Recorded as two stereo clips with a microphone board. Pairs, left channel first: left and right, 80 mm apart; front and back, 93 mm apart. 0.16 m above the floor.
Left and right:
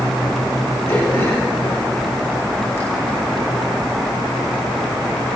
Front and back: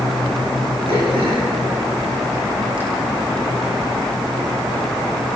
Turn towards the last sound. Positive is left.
turn(degrees=155)